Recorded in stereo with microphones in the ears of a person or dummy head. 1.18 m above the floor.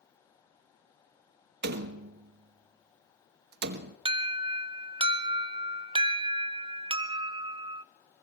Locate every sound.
1.6 s a door slam: 55° right (ahead or behind), 1.1 m
4.0 s an alarm: 25° right (ahead or behind), 0.6 m